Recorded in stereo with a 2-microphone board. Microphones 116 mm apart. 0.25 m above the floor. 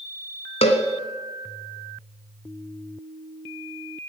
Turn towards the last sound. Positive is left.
turn(degrees=65)  # may be behind; listen again after turning